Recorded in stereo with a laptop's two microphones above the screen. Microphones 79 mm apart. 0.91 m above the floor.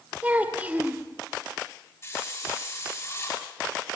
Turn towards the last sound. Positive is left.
turn(degrees=35)  # may be behind; listen again after turning